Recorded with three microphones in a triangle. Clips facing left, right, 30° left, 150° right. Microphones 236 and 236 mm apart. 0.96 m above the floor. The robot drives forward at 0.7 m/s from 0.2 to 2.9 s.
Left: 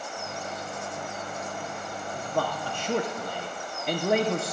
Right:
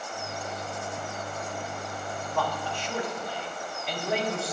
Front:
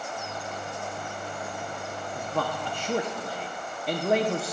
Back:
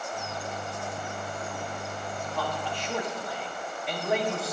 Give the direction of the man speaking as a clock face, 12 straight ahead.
11 o'clock.